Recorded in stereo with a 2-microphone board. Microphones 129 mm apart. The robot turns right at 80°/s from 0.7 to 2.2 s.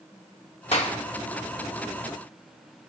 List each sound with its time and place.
0.7 s a clap: 50° left (ahead or behind), 1.8 m; by 0.9 s 60° left (ahead or behind), 1.8 m